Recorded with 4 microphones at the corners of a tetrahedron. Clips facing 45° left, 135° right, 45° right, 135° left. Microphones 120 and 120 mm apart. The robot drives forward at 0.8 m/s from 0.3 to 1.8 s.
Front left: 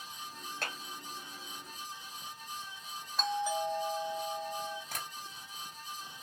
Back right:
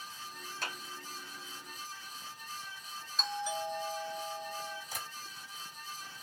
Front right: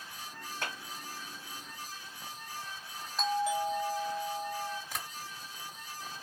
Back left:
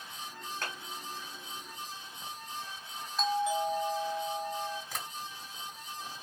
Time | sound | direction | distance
0.6 | a clap | 30° left | 2.5 m
3.2 | a doorbell | 45° left | 3.5 m
4.9 | tapping | 40° left | 3 m